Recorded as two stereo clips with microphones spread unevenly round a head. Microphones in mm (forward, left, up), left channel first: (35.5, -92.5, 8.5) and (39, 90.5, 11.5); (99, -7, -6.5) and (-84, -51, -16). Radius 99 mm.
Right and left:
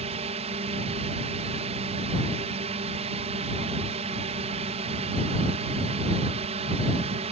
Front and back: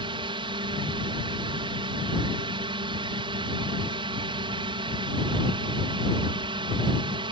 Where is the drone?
135° left.